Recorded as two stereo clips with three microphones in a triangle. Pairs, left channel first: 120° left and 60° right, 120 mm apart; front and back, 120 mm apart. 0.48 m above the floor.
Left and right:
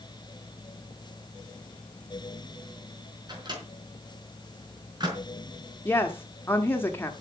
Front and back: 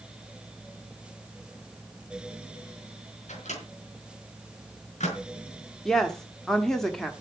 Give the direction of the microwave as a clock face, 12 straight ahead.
12 o'clock.